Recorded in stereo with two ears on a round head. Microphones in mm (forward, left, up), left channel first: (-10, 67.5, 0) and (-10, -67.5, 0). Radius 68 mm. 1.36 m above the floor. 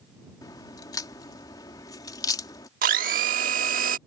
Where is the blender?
60° right (ahead or behind).